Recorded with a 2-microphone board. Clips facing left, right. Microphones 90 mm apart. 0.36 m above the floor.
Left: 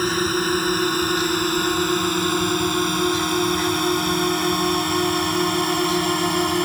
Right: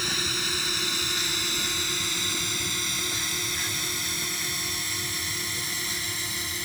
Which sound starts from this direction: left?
A drone, at 0.0 s.